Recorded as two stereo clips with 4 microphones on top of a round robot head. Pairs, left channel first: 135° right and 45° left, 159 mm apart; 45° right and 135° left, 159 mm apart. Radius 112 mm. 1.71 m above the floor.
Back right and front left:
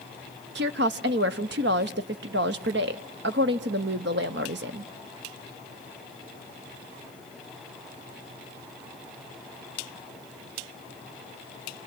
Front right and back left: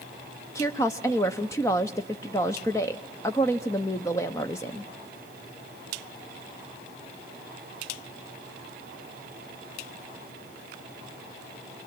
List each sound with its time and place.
0.6 s a woman speaking: 25° left, 0.6 m